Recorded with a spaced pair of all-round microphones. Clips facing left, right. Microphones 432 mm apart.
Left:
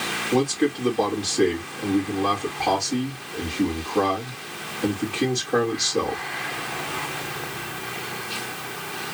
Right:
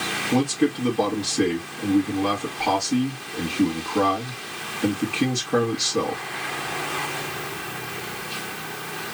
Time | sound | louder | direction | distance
0.3 | a man speaking | even | 20° right (ahead or behind) | 2.5 m